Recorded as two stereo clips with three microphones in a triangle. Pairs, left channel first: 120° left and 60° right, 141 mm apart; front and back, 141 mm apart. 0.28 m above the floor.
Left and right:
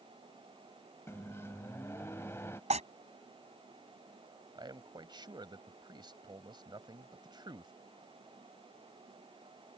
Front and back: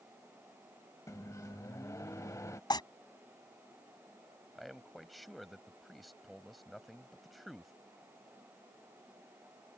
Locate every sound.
1.1 s a microwave: 60° left
2.7 s tearing paper: 50° right
4.5 s a man speaking: 90° right